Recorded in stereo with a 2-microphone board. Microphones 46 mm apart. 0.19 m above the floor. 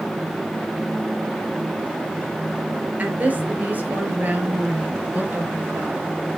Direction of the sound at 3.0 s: 40° right (ahead or behind).